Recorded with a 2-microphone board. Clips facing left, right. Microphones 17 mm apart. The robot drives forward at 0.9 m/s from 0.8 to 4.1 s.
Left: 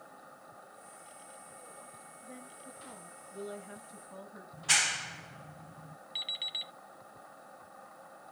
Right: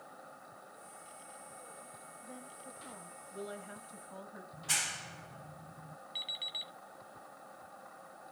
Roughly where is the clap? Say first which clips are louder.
Left 7 dB; left.